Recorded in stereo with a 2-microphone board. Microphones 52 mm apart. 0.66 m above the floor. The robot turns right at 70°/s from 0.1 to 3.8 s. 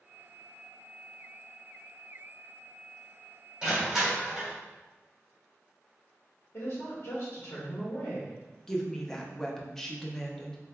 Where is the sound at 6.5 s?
60° left (ahead or behind), 1.1 m.